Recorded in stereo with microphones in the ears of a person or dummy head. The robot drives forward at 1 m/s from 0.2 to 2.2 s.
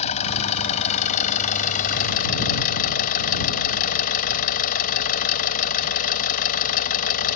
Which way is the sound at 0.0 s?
35° left (ahead or behind).